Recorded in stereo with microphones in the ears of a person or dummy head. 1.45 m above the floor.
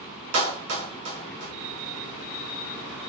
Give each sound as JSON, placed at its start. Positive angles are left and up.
{"t": 0.3, "sound": "a clap", "side_deg": -80, "distance_m": 1.9}